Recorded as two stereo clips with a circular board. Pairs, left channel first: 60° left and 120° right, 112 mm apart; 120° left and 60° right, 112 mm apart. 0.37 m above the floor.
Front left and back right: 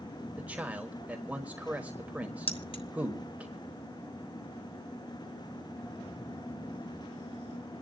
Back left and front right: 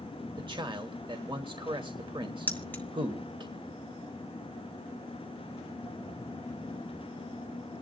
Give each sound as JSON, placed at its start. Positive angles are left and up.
{"t": 0.4, "sound": "a man speaking", "azimuth_deg": -50, "distance_m": 1.3}
{"t": 2.5, "sound": "keys jangling", "azimuth_deg": 50, "distance_m": 1.3}